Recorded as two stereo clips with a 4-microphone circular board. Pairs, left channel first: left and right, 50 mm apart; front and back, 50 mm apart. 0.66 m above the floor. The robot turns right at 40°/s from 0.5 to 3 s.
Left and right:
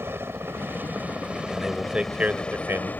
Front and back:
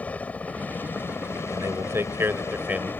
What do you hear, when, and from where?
0.0 s a helicopter: 60° right; by 3.0 s 40° left
1.5 s a man speaking: 175° right; by 2.9 s 120° right